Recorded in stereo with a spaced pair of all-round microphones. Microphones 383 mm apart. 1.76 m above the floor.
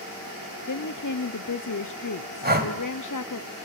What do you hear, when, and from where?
0.7 s a woman speaking: 55° left (ahead or behind), 0.7 m
2.4 s breathing: 25° right (ahead or behind), 2.5 m